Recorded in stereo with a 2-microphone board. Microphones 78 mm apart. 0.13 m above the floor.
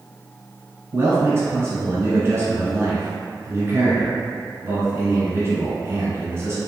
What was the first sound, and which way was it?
A man speaking, 35° right (ahead or behind).